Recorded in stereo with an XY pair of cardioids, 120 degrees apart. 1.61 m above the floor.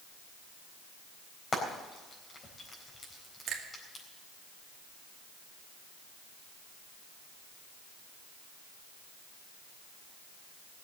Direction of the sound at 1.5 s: 30° left.